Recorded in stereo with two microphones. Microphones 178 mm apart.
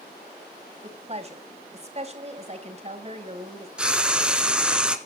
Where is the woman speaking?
40° right (ahead or behind), 2.5 m.